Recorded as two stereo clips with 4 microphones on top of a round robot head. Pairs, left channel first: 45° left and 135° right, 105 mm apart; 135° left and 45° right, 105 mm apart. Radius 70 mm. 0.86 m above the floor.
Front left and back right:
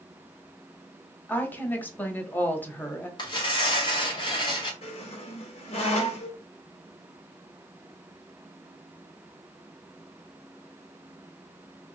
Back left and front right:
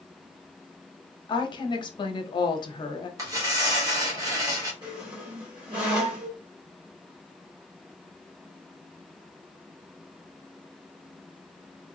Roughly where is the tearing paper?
Ahead.